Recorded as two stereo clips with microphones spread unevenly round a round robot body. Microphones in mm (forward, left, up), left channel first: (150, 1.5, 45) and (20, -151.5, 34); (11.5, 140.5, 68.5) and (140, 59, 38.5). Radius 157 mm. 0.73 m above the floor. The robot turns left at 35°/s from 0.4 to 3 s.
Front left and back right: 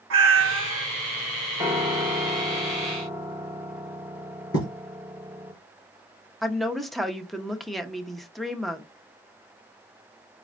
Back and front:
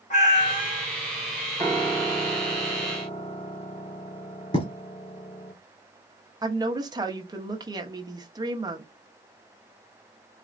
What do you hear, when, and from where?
0.1 s a cat meowing: 160° right, 0.6 m; by 0.9 s 175° right, 0.6 m
1.6 s a piano: 155° right, 1.1 m; by 5.5 s 155° left, 1.1 m
4.5 s writing: 100° left, 2.5 m
6.4 s a woman speaking: 45° right, 0.8 m